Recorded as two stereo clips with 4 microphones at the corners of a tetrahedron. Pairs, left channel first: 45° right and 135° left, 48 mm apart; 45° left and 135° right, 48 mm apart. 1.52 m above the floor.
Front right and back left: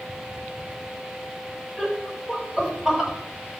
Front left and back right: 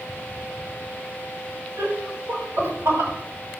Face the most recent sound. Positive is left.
turn(degrees=-150)